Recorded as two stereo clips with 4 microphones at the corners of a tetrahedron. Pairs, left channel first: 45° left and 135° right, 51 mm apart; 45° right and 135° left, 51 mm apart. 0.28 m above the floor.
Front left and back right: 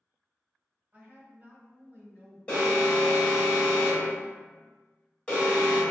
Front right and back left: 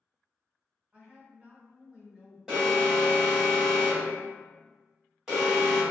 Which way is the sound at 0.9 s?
Straight behind.